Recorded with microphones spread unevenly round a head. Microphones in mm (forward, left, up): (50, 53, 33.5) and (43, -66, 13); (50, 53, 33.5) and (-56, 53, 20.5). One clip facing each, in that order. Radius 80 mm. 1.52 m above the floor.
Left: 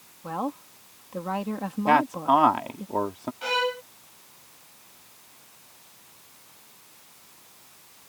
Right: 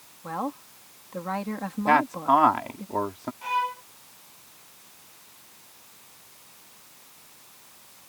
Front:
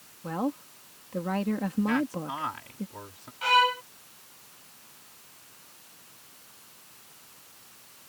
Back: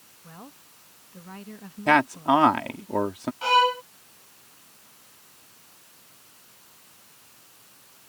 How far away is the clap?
No clap in this recording.